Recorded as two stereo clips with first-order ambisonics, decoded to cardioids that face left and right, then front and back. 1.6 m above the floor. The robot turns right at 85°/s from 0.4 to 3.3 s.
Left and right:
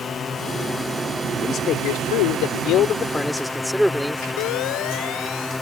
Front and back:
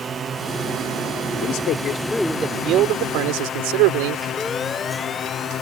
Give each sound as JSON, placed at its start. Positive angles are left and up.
{"t": 0.0, "sound": "a drone", "azimuth_deg": 135}
{"t": 1.4, "sound": "a man speaking", "azimuth_deg": 20}
{"t": 4.4, "sound": "a siren", "azimuth_deg": 75}